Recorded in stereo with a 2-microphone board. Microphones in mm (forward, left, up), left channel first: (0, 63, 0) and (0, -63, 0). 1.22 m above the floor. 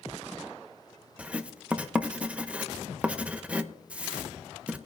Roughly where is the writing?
Centre.